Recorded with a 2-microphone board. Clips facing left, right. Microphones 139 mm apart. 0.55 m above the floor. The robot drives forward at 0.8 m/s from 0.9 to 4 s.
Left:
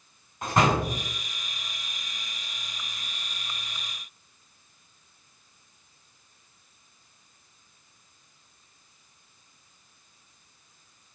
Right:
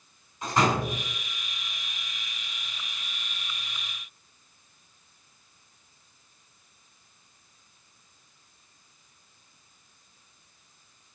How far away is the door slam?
About 3.5 m.